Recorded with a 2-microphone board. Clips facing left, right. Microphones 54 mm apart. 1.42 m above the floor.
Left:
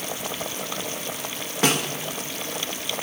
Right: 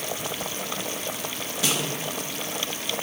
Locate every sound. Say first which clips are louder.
1.6 s a snare drum: left 5 dB; 50° left (ahead or behind), 1.8 m